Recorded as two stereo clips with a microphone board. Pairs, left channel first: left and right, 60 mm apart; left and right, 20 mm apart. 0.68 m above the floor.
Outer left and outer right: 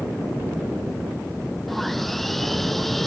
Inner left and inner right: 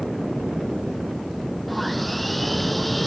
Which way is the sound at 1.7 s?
Centre (ahead or behind).